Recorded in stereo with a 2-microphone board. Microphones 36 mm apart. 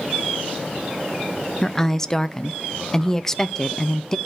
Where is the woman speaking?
15° left (ahead or behind), 0.6 m.